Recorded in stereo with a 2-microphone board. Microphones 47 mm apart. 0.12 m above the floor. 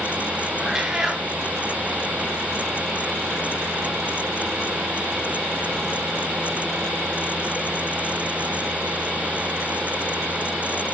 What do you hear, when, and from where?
0.6 s a cat meowing: 10° right (ahead or behind), 3.5 m